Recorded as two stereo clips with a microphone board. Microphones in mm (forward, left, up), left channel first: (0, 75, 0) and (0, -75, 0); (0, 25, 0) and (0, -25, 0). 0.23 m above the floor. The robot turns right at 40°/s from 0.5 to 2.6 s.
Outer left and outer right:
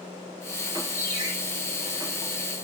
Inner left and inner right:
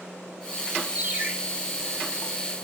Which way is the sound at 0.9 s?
15° right (ahead or behind).